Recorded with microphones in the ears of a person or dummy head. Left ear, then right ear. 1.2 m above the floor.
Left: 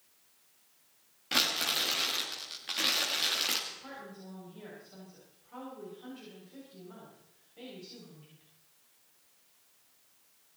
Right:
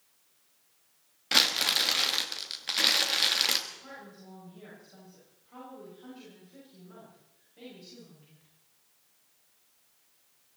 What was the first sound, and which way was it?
Crumpling, 35° right (ahead or behind).